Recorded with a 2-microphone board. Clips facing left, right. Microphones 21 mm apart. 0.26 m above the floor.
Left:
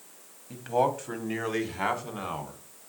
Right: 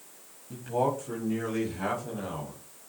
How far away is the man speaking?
About 1.3 m.